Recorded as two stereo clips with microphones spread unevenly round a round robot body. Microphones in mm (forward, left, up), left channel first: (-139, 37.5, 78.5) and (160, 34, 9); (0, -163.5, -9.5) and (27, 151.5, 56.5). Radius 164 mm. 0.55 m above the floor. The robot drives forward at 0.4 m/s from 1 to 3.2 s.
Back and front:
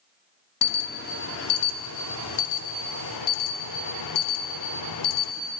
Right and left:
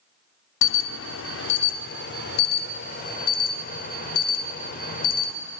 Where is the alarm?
120° right, 1.0 m; by 5.3 s 150° right, 1.5 m.